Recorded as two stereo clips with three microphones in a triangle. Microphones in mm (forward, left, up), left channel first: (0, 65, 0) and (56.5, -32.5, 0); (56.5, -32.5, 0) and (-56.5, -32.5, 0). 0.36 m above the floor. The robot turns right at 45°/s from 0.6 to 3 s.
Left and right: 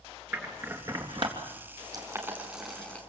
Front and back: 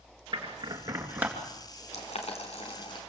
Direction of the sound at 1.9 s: 5° right.